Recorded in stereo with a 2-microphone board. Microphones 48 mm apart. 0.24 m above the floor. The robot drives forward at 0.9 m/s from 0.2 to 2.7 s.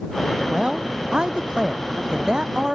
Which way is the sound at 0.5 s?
20° right (ahead or behind).